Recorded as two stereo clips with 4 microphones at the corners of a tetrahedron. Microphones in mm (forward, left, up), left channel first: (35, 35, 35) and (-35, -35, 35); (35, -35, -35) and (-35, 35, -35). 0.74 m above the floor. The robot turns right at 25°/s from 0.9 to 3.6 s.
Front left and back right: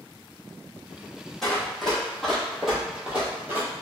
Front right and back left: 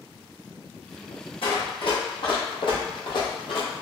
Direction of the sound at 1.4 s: 40° right.